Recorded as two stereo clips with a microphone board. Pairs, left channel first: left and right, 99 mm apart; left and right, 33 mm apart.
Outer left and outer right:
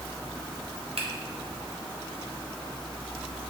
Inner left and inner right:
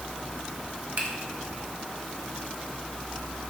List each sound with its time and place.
1.0 s a finger snap: 70° right (ahead or behind), 0.8 m